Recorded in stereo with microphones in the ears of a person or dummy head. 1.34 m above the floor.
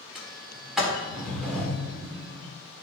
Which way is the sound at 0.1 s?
Centre (ahead or behind).